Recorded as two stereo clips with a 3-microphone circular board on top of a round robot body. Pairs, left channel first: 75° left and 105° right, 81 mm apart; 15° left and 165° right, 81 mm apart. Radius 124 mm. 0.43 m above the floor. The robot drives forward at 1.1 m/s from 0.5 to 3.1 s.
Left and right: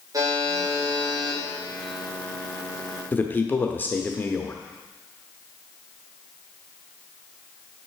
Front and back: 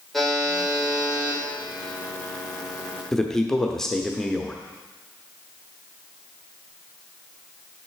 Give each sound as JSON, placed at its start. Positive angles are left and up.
{"t": 0.1, "sound": "a buzzer", "azimuth_deg": -70, "distance_m": 2.5}
{"t": 3.1, "sound": "a man speaking", "azimuth_deg": 90, "distance_m": 0.8}